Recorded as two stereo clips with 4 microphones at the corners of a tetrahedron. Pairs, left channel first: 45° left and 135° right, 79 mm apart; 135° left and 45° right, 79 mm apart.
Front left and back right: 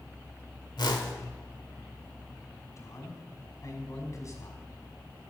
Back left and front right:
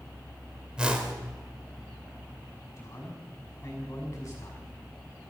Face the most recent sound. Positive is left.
turn(degrees=85)